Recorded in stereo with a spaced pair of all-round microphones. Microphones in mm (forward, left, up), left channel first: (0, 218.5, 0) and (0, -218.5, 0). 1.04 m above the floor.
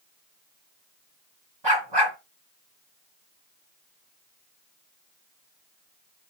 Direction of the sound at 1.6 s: 70° right (ahead or behind).